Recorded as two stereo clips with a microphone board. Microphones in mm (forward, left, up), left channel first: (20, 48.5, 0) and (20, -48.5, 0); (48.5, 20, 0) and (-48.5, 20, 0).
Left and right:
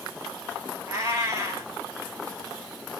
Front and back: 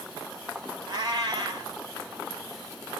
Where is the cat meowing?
145° right, 1.2 m.